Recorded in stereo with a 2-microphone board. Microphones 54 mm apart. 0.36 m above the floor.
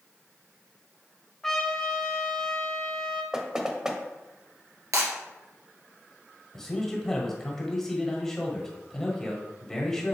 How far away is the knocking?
About 0.9 m.